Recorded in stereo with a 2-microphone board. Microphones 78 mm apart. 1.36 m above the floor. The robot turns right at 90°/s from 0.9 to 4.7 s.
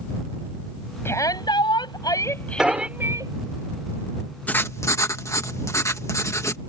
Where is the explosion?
10° right (ahead or behind); by 2.9 s 35° right (ahead or behind).